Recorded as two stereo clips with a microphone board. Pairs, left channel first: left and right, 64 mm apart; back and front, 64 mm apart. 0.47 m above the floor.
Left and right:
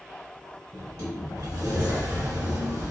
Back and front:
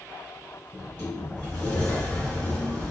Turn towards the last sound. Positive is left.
turn(degrees=-110)